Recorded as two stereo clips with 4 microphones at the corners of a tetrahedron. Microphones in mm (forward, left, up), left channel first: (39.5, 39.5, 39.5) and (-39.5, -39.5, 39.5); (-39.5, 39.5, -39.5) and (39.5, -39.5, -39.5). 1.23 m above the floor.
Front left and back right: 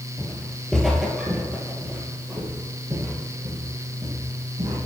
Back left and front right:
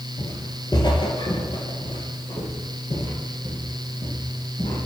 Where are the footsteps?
105° left, 1.4 m; by 4.8 s straight behind, 3.5 m.